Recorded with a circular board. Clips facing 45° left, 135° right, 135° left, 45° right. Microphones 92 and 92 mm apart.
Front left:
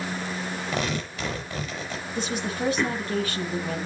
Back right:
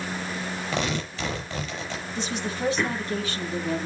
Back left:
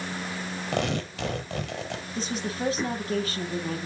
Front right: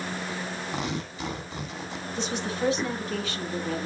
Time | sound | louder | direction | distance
0.7 | tearing paper | back right 1 dB, back left 7 dB | 125° left | 6.5 m
2.1 | a woman speaking | front left 2 dB, front right 2 dB | 85° left | 8 m